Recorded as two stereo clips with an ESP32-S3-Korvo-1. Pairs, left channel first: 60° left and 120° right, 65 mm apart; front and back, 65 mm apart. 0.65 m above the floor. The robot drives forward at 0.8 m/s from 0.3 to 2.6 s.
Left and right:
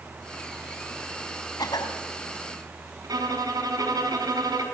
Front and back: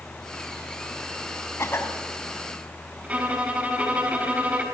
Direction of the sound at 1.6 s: 50° left.